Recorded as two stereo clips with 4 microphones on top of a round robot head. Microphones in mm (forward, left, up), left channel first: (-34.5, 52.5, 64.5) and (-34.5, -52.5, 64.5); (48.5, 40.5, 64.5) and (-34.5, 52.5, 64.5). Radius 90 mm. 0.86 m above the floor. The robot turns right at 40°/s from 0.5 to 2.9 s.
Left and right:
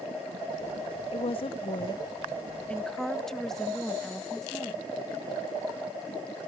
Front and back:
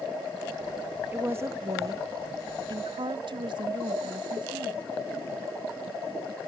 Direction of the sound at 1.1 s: 105° left.